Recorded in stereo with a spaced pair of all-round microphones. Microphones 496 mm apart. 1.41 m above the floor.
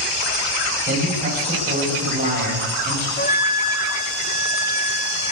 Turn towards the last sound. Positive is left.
turn(degrees=20)  # may be behind; listen again after turning